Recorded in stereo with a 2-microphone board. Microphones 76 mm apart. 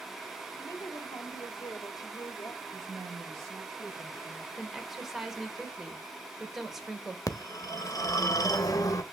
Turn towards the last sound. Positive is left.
turn(degrees=50)  # may be behind; listen again after turning